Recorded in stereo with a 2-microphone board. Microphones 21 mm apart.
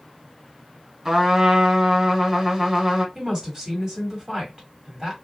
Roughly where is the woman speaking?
Right.